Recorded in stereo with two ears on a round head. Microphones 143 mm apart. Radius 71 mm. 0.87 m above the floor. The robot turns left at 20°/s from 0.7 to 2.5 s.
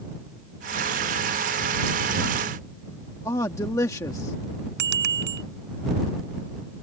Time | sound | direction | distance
3.2 | a man speaking | 20° left (ahead or behind) | ?
4.8 | a bicycle bell | 75° right (ahead or behind) | ?